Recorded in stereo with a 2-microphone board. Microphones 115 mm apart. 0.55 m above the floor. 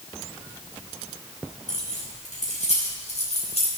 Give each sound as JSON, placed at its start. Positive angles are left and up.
{"t": 1.7, "sound": "keys jangling", "side_deg": 85, "distance_m": 3.5}